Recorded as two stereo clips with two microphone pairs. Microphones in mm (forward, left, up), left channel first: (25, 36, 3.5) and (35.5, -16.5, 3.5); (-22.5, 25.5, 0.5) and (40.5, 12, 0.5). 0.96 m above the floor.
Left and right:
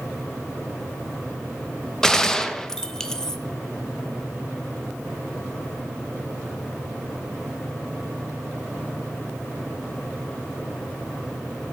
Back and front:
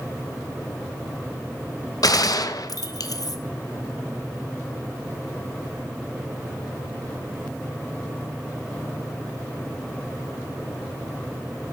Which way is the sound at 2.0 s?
Straight behind.